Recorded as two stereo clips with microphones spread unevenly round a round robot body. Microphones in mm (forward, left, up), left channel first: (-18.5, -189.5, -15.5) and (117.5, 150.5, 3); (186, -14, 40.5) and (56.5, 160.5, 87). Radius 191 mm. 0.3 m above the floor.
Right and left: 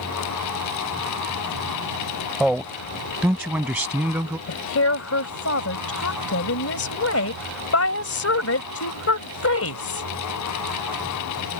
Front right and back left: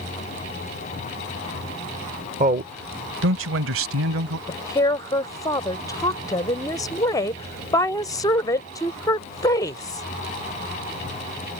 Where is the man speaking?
160° left; by 4.4 s 155° left.